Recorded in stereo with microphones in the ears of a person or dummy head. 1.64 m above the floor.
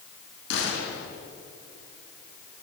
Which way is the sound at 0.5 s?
70° left (ahead or behind).